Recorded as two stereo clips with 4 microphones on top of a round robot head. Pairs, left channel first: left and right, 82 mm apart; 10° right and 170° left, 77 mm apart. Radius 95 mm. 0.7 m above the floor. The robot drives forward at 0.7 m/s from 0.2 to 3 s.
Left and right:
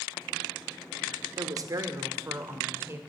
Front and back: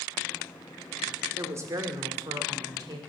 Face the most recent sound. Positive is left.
turn(degrees=-150)